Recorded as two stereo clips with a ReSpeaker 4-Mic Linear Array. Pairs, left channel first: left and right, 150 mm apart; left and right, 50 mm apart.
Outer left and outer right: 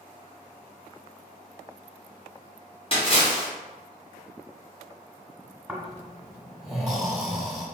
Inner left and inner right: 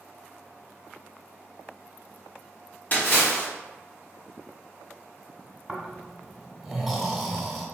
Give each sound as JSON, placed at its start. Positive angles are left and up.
{"t": 2.9, "sound": "a splash", "side_deg": 40, "distance_m": 1.4}
{"t": 5.7, "sound": "snoring", "side_deg": 0, "distance_m": 1.2}